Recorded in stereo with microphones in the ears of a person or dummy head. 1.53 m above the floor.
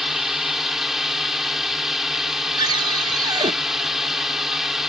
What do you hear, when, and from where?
0.0 s a drone: 5° right (ahead or behind)
2.6 s a cupboard door: 25° right (ahead or behind)